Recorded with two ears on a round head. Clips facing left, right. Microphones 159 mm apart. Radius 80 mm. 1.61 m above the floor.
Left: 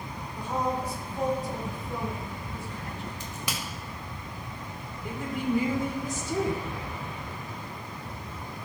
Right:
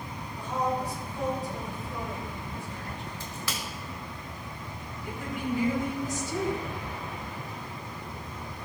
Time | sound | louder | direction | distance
0.4 | a woman speaking | even | 35° left (ahead or behind) | 5 m
3.2 | a crack | left 1 dB | 15° left (ahead or behind) | 1.7 m
5.0 | a woman speaking | left 3 dB | 65° left (ahead or behind) | 4 m